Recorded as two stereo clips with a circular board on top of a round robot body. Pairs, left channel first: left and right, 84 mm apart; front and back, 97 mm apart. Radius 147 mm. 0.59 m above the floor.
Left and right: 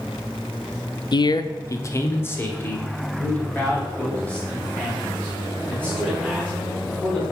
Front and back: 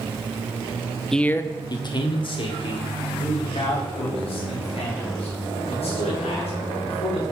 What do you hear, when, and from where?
1.1 s a man speaking: 85° left, 0.9 m; by 7.2 s 10° left, 8 m